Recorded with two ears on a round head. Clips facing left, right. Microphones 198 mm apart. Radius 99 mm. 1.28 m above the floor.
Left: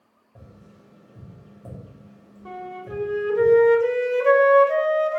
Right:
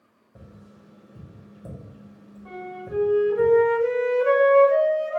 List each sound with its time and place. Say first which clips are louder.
0.3 s tapping: right 1 dB; 15° right (ahead or behind), 1.1 m
2.5 s a flute: even; 60° left (ahead or behind), 0.9 m